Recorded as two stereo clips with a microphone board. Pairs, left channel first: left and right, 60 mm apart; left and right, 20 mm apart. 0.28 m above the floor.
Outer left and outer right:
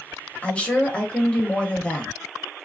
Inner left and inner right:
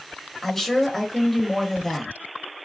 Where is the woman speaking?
20° left (ahead or behind), 0.9 m.